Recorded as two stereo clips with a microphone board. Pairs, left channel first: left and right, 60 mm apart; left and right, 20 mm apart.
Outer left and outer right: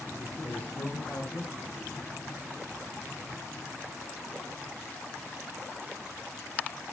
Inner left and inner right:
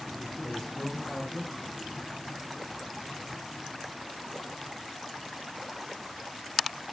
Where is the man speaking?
35° left (ahead or behind), 1.7 m.